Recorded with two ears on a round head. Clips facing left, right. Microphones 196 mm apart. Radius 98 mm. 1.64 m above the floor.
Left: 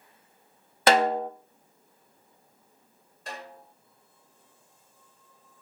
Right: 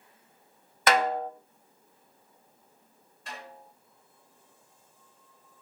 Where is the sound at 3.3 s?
35° left (ahead or behind), 6 m.